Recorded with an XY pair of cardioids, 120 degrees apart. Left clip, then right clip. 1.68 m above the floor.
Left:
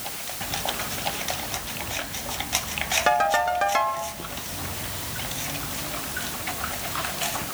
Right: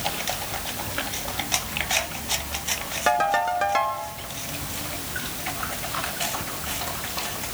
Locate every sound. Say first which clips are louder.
3.1 s a ringtone: right 1 dB; 5° left, 2 m